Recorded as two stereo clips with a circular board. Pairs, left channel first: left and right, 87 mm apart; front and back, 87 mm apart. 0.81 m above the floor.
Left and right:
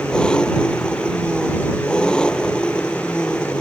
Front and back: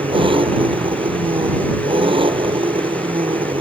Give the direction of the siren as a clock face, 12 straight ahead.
No siren in this recording.